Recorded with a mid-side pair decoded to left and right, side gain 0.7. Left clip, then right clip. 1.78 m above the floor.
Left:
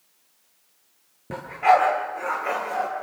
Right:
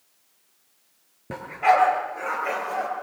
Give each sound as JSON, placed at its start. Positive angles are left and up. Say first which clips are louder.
{"t": 1.3, "sound": "a dog barking", "louder": "left 1 dB", "azimuth_deg": -10, "distance_m": 9.0}